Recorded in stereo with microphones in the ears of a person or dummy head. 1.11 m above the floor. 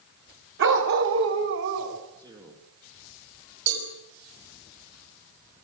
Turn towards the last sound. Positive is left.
turn(degrees=-90)